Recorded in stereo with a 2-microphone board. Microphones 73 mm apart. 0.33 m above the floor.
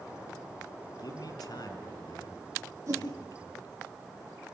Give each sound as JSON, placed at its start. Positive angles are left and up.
{"t": 1.0, "sound": "a man speaking", "side_deg": 60, "distance_m": 4.0}
{"t": 2.9, "sound": "a whoosh", "side_deg": -40, "distance_m": 6.0}